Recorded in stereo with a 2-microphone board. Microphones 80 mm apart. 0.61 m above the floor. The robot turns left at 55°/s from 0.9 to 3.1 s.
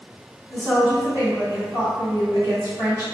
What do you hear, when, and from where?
0.5 s a woman speaking: 25° right, 1.5 m; by 3.1 s 145° right, 1.5 m